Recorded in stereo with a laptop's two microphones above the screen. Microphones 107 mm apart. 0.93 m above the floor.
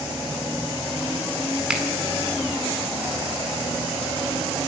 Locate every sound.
1.7 s a finger snap: 10° right (ahead or behind), 2 m